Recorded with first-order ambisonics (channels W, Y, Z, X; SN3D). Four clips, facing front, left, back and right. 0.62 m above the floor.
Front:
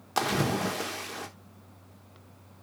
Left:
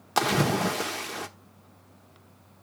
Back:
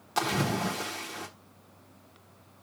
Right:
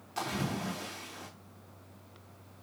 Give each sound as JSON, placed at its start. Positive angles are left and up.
{"t": 0.2, "sound": "a splash", "azimuth_deg": 80, "distance_m": 1.1}